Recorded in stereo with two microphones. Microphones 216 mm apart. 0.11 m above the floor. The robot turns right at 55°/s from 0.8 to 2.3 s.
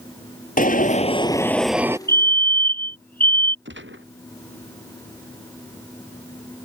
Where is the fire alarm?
50° left (ahead or behind); by 3.5 s 45° left (ahead or behind).